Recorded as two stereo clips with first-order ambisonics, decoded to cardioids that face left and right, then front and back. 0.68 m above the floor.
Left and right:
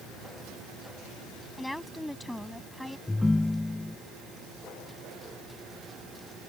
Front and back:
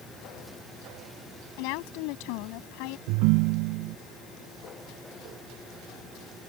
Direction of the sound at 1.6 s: 5° left.